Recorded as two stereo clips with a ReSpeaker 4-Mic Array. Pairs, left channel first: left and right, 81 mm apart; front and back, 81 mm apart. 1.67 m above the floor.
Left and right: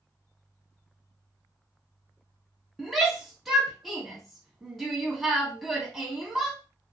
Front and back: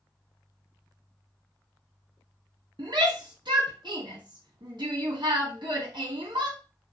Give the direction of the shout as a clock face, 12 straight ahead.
6 o'clock.